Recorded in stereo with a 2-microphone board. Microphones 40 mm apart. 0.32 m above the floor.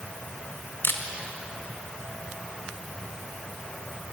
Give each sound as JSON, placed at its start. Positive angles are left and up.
{"t": 0.8, "sound": "a camera shutter", "side_deg": 80, "distance_m": 1.5}